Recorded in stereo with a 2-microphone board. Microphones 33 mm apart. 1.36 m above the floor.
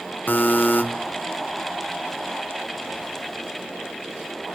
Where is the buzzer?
65° left (ahead or behind), 1.0 m.